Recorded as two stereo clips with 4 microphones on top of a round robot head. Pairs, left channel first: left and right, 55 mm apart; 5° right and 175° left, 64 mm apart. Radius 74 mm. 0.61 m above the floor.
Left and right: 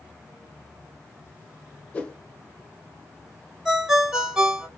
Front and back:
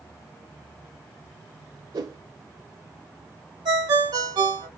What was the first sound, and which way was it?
A whoosh, 155° left.